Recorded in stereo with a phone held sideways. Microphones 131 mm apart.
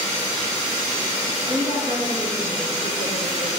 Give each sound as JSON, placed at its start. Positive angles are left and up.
{"t": 1.5, "sound": "a woman speaking", "side_deg": -75, "distance_m": 9.0}